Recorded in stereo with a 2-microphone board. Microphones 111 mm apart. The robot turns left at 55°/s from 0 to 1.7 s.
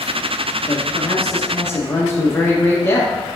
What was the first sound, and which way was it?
A man speaking, 90° left.